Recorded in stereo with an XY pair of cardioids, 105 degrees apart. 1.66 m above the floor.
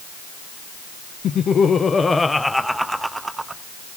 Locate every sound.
1.2 s laughter: 60° left, 1.4 m; by 3.6 s 25° right, 1.8 m